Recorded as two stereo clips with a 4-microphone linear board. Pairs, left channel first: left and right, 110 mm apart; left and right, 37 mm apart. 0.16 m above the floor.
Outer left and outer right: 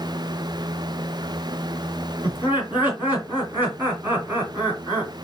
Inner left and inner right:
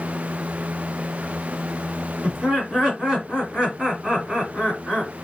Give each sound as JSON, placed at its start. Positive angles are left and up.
{"t": 2.2, "sound": "laughter", "side_deg": -20, "distance_m": 1.8}